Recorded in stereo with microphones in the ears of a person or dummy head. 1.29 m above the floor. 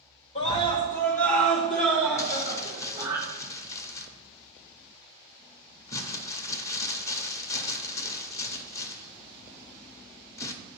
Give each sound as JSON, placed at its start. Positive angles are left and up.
{"t": 0.3, "sound": "a scream", "side_deg": 30, "distance_m": 1.4}
{"t": 2.2, "sound": "crumpling", "side_deg": 15, "distance_m": 0.7}